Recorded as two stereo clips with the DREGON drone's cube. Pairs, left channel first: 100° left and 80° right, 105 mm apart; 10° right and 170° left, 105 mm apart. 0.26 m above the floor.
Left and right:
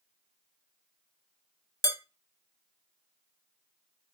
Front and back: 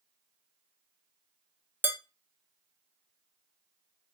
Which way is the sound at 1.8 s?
115° left.